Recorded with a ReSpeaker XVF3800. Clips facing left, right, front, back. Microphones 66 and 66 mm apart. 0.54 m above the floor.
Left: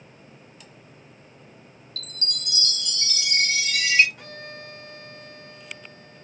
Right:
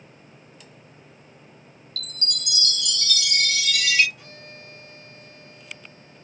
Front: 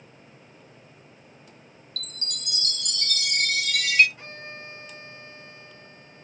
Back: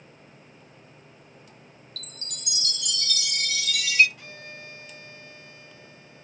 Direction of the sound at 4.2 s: 55° left.